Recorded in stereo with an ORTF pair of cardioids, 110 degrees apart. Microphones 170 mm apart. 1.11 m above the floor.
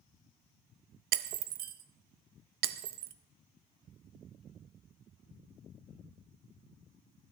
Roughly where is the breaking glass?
Ahead right.